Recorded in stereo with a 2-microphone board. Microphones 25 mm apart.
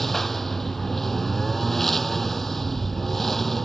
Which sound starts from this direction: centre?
A lawn mower, at 0.0 s.